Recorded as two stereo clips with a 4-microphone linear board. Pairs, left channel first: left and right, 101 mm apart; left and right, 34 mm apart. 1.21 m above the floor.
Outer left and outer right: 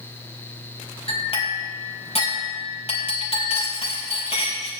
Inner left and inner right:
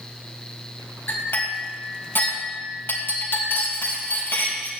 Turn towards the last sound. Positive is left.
turn(degrees=80)